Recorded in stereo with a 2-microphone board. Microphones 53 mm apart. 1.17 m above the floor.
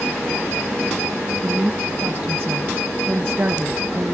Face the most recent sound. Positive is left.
turn(degrees=-35)  # may be behind; listen again after turning